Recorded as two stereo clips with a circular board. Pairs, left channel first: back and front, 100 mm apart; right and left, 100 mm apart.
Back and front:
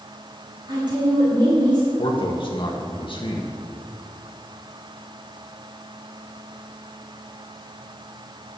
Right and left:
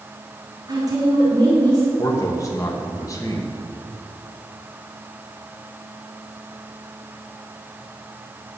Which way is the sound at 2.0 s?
150° right.